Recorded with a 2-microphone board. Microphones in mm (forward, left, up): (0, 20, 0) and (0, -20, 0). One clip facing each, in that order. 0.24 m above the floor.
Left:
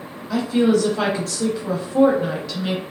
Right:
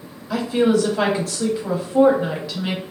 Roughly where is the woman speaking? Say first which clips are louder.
Even; centre.